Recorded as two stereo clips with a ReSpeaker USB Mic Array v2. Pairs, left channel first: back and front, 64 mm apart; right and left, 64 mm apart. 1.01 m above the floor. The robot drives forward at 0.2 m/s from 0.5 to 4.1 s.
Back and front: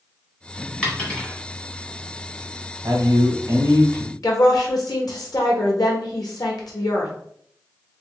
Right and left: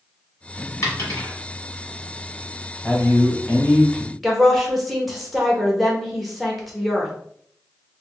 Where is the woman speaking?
Straight behind, 1.1 m.